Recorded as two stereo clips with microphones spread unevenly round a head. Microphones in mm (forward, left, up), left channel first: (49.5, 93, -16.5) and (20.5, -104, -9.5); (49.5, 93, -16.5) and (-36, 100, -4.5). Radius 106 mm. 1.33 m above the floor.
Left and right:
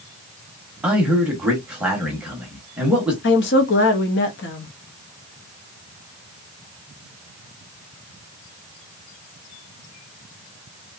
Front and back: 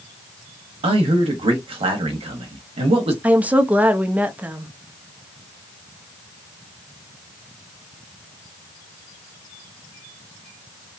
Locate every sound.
0.8 s a man speaking: 175° left, 0.8 m
3.2 s a woman speaking: 100° left, 0.7 m